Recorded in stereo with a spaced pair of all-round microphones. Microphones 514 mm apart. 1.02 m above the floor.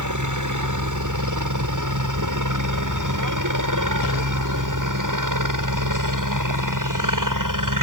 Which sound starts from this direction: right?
A helicopter, at 0.0 s.